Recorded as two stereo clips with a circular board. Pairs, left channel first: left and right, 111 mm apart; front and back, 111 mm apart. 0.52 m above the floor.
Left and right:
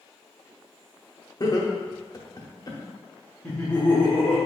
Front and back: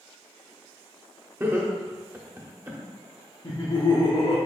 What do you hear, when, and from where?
1.4 s laughter: 120° left, 0.9 m
3.4 s laughter: 20° left, 1.0 m